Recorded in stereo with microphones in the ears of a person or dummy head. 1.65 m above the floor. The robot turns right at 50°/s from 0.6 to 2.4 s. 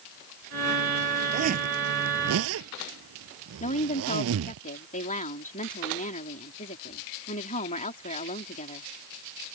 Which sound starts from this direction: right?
A zipper, at 1.3 s.